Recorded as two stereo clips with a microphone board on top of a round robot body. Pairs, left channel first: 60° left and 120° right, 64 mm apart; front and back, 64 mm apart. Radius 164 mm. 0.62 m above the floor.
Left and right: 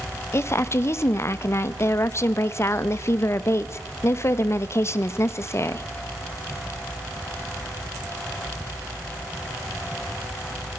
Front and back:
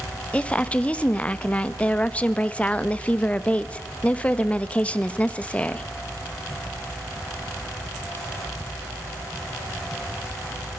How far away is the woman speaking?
About 1.3 m.